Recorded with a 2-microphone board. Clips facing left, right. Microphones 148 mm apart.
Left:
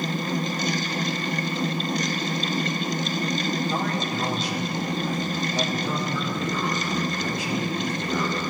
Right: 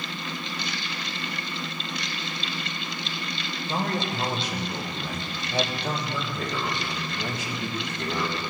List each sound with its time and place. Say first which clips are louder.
3.7 s a man speaking: left 2 dB; 40° right (ahead or behind), 2.5 m; by 8.4 s 70° right (ahead or behind), 4 m